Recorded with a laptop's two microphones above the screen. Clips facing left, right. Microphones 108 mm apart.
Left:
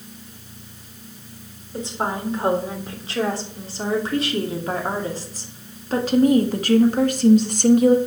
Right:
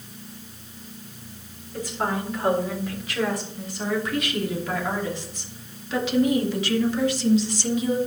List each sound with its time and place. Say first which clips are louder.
1.7 s a woman speaking: left 1 dB; 25° left (ahead or behind), 4.5 m; by 8.0 s 55° left (ahead or behind), 1.5 m